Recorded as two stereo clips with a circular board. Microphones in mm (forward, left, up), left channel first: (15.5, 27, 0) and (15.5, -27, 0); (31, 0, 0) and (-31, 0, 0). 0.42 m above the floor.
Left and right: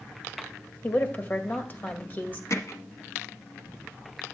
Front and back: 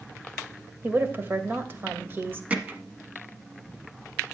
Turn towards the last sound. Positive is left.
turn(degrees=110)